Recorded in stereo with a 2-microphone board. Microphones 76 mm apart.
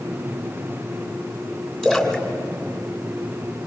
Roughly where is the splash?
Centre.